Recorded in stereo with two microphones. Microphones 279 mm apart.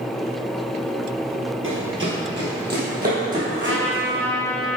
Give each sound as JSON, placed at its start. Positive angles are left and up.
{"t": 1.6, "sound": "running footsteps", "side_deg": -45, "distance_m": 2.0}
{"t": 3.5, "sound": "a trumpet", "side_deg": -45, "distance_m": 1.2}